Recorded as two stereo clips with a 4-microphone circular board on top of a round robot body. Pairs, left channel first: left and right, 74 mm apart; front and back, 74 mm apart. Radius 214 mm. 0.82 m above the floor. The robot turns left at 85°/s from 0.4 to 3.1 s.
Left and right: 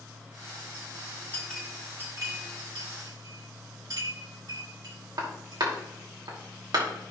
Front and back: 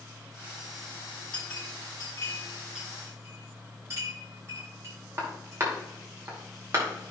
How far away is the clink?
About 2.5 m.